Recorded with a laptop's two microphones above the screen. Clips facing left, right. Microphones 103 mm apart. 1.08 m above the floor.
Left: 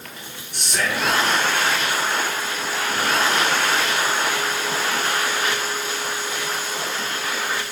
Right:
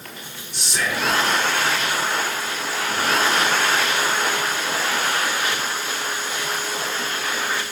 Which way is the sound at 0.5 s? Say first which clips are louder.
Left 1 dB; 55° left (ahead or behind).